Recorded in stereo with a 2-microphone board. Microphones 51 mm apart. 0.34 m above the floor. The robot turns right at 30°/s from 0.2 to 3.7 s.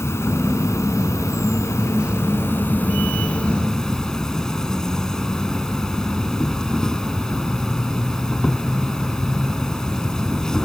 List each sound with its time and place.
0.0 s an insect: 65° left; by 10.7 s 170° left